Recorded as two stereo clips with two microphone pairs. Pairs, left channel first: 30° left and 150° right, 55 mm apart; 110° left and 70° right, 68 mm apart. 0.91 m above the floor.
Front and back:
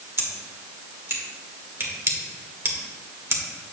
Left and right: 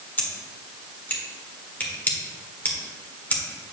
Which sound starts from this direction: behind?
Scissors, at 0.2 s.